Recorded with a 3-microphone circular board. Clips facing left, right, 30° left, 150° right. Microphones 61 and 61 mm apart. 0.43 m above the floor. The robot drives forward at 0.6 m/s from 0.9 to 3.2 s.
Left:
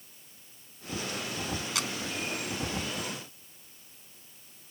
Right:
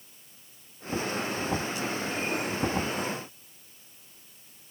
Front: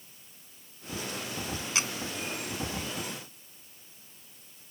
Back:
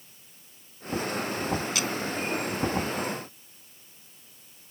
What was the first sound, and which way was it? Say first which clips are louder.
A camera shutter: right 2 dB, back 2 dB; 95° left.